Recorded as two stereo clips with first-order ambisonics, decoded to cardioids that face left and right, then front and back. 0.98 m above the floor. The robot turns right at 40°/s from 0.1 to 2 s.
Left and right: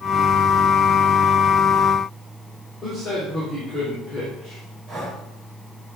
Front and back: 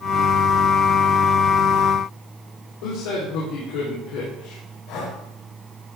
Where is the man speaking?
15° left, 3 m.